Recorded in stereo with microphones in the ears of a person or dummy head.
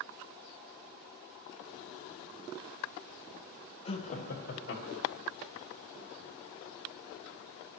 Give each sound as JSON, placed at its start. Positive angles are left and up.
{"t": 3.9, "sound": "laughter", "side_deg": 30, "distance_m": 1.2}